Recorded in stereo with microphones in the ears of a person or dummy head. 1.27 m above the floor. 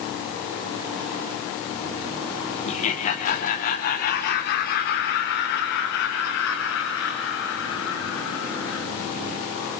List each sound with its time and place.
2.6 s laughter: 40° left (ahead or behind), 3 m; by 8.8 s 80° left, 9 m